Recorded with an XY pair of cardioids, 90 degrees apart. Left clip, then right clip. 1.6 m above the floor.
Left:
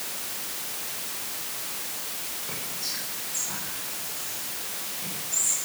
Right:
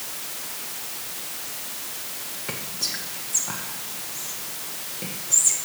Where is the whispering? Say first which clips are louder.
Right 6 dB; 70° right, 2.0 m.